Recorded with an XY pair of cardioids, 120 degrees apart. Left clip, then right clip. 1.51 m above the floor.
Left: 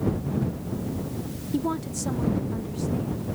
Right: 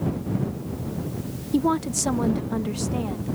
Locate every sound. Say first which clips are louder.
1.5 s a woman speaking: right 6 dB; 25° right; by 3.4 s 70° right